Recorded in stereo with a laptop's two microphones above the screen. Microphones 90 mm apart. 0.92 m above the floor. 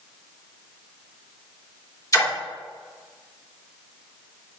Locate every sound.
2.1 s a splash: 40° left (ahead or behind), 2.5 m